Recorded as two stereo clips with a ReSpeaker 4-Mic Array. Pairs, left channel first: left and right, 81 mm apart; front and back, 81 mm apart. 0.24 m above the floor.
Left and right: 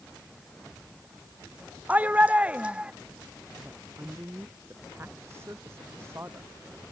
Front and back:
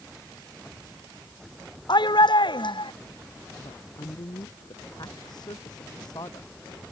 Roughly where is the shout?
Ahead.